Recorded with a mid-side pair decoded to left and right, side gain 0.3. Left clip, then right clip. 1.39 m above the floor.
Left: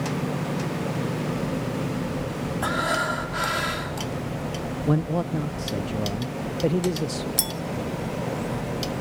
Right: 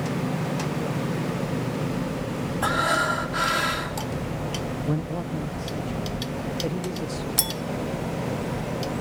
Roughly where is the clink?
Ahead.